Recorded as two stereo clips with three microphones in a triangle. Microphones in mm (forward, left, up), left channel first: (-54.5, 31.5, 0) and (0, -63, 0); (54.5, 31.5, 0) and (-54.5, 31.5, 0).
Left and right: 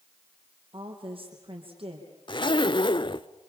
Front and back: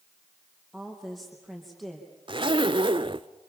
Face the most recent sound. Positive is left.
turn(degrees=155)